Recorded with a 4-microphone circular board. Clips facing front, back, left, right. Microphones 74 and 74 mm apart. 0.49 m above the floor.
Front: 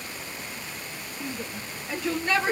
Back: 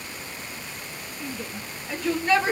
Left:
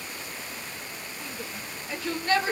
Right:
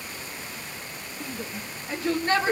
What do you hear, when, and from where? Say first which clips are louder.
1.2 s a shout: even, right 4 dB; 50° right, 1.4 m; by 2.5 s 115° right, 1.2 m